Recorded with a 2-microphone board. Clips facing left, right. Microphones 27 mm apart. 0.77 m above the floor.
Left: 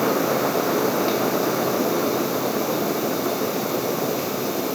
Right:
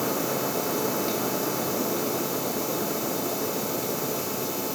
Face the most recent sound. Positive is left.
No sound to turn to.